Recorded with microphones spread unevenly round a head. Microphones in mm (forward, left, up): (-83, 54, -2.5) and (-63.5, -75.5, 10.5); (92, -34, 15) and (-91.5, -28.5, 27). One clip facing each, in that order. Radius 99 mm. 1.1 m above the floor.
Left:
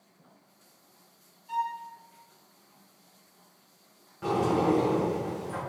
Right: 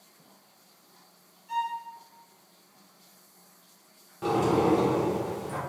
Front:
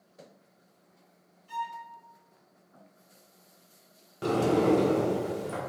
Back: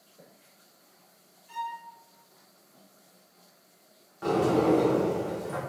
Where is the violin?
40° left, 1.8 m.